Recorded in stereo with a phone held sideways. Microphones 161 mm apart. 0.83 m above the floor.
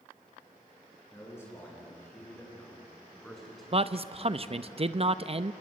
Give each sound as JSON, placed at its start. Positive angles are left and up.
{"t": 1.1, "sound": "a man speaking", "side_deg": 20, "distance_m": 9.5}
{"t": 3.7, "sound": "a man speaking", "side_deg": -40, "distance_m": 0.6}